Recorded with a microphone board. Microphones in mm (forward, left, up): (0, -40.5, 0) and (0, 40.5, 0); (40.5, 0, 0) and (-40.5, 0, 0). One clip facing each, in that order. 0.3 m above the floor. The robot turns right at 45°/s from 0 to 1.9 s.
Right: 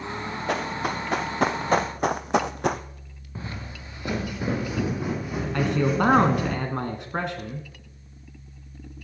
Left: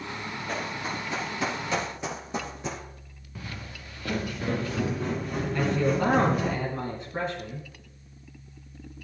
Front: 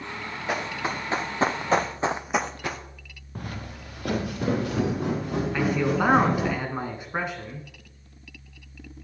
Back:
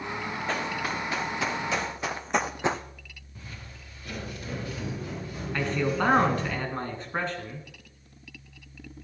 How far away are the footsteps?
About 1.8 m.